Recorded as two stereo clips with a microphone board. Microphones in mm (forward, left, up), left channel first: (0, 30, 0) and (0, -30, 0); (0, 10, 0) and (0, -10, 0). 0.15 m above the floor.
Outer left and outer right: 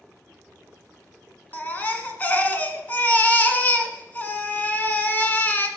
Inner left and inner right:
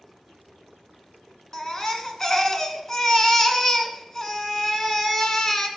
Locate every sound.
1.5 s a baby crying: 25° left (ahead or behind), 1.3 m